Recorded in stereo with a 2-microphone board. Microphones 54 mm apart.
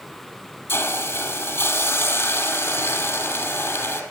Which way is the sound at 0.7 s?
50° left (ahead or behind).